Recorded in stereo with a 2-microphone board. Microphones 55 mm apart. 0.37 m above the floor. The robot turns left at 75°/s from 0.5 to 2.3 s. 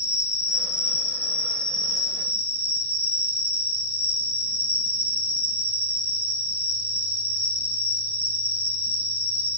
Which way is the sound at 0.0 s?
115° left.